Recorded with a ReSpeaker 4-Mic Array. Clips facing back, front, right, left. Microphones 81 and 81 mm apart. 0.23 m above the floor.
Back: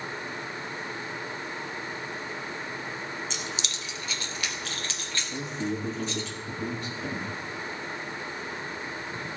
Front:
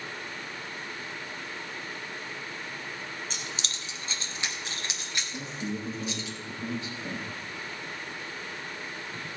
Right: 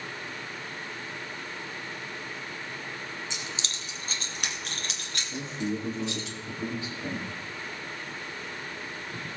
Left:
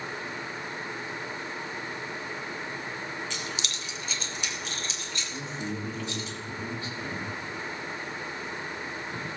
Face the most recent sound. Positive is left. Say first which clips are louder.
# back 5 dB, right 4 dB
turn(degrees=-160)